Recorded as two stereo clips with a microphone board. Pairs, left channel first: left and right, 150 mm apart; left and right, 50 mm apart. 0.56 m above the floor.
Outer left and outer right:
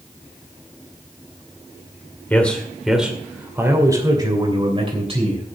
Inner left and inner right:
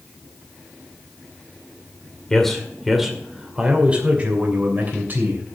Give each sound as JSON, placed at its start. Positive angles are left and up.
{"t": 2.3, "sound": "a man speaking", "side_deg": 10, "distance_m": 2.0}